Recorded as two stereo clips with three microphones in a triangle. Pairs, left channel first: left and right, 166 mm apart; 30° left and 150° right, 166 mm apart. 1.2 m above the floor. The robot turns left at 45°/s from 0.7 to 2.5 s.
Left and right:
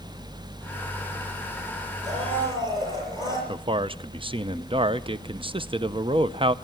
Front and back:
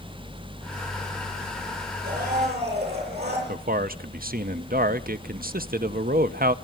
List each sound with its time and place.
2.0 s a blender: 135° right, 8 m; by 3.4 s 155° right, 8 m
3.5 s a man speaking: 145° right, 0.7 m